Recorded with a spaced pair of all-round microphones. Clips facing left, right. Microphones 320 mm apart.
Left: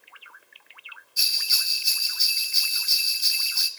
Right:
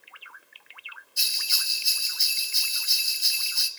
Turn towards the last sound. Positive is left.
turn(degrees=5)  # may be behind; listen again after turning